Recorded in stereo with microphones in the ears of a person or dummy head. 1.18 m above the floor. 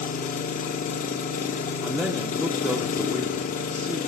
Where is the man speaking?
5° right (ahead or behind), 0.5 m.